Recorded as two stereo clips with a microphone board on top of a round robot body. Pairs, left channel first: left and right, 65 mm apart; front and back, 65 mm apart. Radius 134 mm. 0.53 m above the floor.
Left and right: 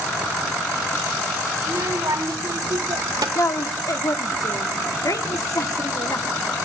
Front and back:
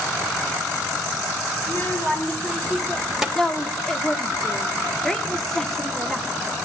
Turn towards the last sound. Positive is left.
turn(degrees=85)